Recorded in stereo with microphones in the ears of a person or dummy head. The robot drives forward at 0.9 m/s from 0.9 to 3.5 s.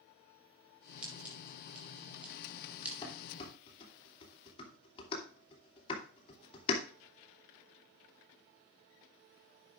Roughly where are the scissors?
Centre.